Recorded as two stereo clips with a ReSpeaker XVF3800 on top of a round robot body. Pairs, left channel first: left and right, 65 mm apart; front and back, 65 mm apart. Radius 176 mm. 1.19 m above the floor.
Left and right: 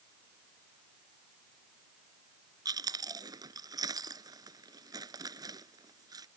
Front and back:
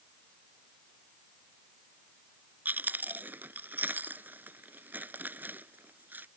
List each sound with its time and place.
2.6 s chewing: 115° right